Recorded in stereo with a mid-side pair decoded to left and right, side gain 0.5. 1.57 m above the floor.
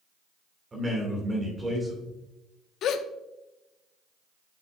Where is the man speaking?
25° right, 2 m.